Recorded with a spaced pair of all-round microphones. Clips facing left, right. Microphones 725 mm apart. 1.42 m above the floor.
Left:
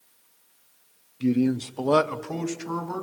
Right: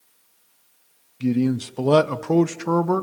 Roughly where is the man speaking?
Right.